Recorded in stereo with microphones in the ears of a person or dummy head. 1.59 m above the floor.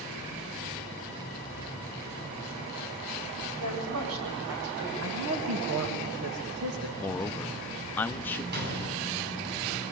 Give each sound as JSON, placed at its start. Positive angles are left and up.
{"t": 3.6, "sound": "a woman speaking", "side_deg": -80, "distance_m": 8.5}
{"t": 5.0, "sound": "a man speaking", "side_deg": -85, "distance_m": 2.5}
{"t": 7.0, "sound": "a man speaking", "side_deg": 15, "distance_m": 0.8}
{"t": 8.5, "sound": "a gunshot", "side_deg": -60, "distance_m": 10.0}